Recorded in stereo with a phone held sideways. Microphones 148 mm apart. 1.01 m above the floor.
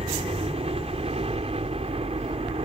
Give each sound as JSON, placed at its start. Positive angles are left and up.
{"t": 0.0, "sound": "a helicopter", "side_deg": -40}